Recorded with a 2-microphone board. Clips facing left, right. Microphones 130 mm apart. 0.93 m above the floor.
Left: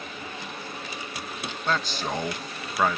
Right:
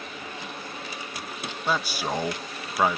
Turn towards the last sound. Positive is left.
turn(degrees=-10)  # may be behind; listen again after turning